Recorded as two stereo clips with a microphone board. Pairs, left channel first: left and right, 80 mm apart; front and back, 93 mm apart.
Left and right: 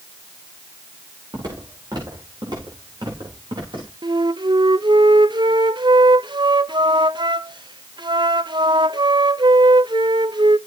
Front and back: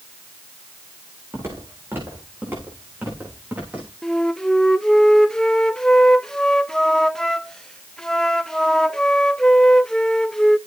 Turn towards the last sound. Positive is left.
turn(degrees=-85)